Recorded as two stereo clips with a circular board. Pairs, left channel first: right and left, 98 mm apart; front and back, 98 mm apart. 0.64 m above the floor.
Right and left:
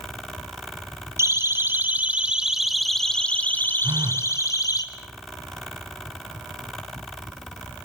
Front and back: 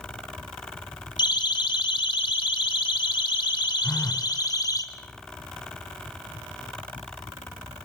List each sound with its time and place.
1.2 s a siren: 35° left, 3 m; by 4.8 s 45° right, 3 m
3.8 s a phone buzzing: 60° left, 0.8 m